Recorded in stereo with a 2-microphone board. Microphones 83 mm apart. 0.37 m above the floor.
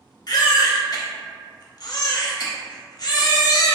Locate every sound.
0.3 s a baby crying: 50° left (ahead or behind), 0.7 m